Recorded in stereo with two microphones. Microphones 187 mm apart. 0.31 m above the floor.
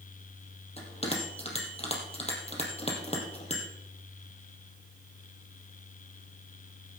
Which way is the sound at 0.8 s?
35° left (ahead or behind).